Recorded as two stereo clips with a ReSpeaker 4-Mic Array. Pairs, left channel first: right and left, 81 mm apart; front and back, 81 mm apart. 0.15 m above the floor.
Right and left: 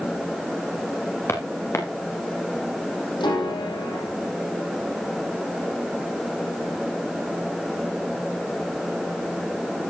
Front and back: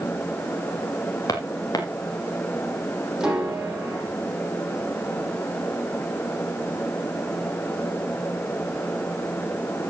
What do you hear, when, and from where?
1.3 s footsteps: 35° right, 3 m
3.2 s a piano: 95° right, 5 m